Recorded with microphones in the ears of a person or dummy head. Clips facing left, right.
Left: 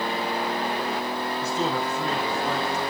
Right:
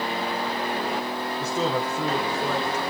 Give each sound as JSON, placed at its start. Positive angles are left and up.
{"t": 1.4, "sound": "a man speaking", "side_deg": -85, "distance_m": 3.5}